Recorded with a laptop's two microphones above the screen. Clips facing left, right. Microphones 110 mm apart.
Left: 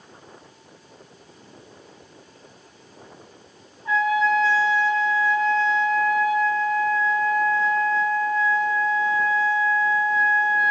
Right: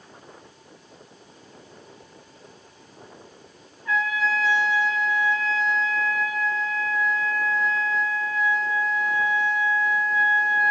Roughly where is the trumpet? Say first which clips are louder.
Left 5 dB; left.